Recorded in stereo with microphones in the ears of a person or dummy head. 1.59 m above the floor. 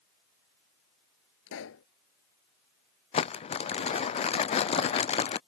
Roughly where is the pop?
Left.